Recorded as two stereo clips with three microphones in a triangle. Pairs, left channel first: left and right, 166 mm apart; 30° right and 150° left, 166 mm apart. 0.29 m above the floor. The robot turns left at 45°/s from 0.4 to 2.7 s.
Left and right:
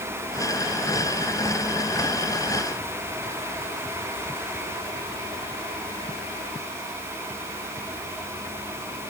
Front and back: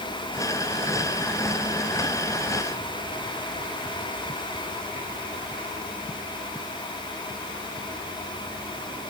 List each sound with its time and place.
Only background noise.